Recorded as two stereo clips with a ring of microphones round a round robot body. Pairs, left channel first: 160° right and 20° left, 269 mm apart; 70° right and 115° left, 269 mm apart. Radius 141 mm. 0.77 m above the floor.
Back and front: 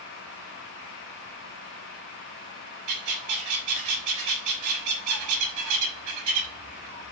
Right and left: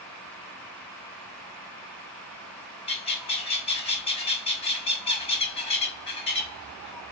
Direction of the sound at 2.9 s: Straight ahead.